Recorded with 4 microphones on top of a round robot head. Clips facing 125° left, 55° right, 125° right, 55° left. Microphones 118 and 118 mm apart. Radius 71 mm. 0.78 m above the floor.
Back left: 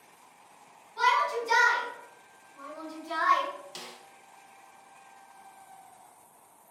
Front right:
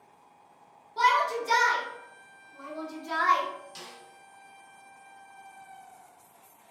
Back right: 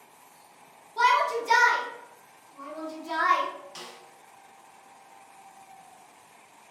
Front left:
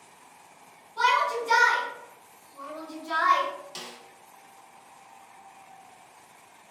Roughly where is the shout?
Right.